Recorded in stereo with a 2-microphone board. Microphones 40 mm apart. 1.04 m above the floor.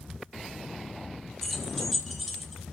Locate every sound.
1.4 s keys jangling: 10° left (ahead or behind), 3 m; by 2.6 s 5° left (ahead or behind), 4.5 m